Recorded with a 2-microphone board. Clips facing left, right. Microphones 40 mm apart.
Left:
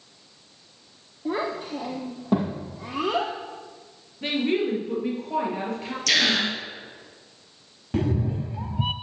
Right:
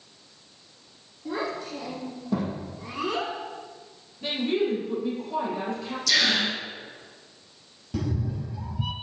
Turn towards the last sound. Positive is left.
turn(degrees=40)  # may be behind; listen again after turning